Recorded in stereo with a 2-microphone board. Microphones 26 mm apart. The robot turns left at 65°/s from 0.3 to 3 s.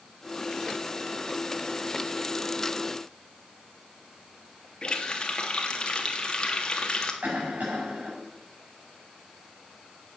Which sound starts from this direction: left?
A running tap, at 4.8 s.